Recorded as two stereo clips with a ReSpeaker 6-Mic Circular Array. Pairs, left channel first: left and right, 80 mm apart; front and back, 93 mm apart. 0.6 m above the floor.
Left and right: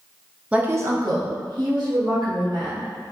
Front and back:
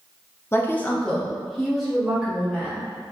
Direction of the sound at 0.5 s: 30° right.